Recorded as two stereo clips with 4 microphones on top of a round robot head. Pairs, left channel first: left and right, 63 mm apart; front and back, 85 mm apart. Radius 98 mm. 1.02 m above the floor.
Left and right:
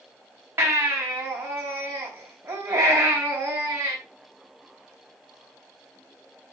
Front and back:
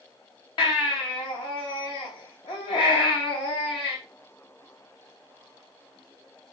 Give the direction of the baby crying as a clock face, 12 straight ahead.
1 o'clock.